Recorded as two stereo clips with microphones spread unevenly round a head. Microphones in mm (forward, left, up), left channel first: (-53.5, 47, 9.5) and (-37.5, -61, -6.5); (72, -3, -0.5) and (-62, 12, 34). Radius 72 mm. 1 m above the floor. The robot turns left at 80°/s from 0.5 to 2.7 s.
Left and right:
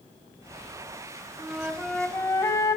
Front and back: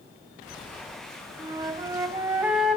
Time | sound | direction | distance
1.4 | a flute | 150° right | 0.9 m